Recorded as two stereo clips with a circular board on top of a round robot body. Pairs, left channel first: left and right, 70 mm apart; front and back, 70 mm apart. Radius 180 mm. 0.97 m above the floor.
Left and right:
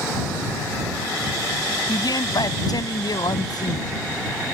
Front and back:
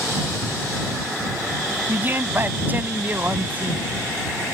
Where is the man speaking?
120° left; by 3.9 s 115° left.